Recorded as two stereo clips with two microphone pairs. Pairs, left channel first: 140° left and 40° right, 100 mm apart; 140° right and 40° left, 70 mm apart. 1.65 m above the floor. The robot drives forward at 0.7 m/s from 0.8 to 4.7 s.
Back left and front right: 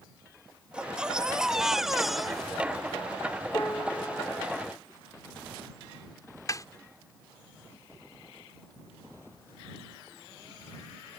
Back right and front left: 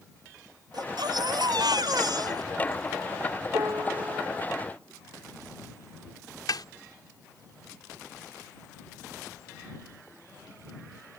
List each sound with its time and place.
0.7 s a baby crying: 40° left; by 3.0 s 55° left
3.5 s a piano: 75° left
6.5 s a snare drum: 165° right